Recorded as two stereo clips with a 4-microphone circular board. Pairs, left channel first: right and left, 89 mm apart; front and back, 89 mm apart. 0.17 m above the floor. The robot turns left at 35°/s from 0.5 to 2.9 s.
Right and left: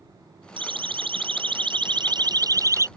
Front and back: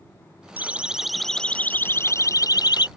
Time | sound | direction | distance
0.6 | a siren | 110° left | ?